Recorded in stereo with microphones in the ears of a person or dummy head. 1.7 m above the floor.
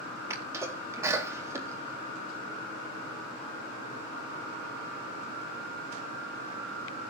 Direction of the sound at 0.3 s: 20° right (ahead or behind).